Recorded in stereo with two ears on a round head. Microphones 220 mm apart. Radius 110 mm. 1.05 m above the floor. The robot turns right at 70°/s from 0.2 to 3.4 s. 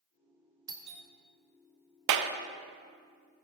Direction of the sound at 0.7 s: 15° right (ahead or behind).